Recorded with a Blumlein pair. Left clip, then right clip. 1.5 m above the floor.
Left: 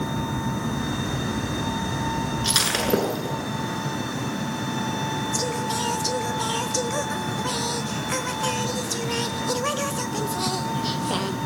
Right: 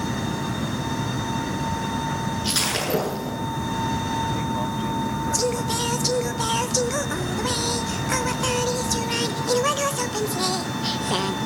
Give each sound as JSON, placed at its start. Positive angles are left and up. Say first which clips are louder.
{"t": 2.4, "sound": "breaking glass", "louder": "left 2 dB", "azimuth_deg": 20, "distance_m": 9.5}
{"t": 5.3, "sound": "singing", "louder": "right 4 dB", "azimuth_deg": -10, "distance_m": 1.6}